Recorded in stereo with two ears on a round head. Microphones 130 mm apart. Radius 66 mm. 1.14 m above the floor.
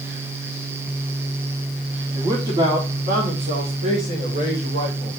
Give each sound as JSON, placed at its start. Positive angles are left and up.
{"t": 2.1, "sound": "a man speaking", "side_deg": -35, "distance_m": 3.5}